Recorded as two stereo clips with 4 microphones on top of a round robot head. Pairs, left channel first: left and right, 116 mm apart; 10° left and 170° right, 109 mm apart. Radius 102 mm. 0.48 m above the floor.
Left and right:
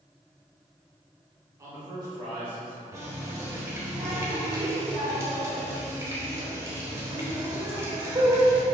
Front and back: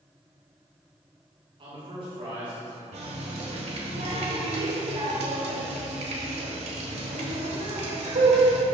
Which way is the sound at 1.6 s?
150° right.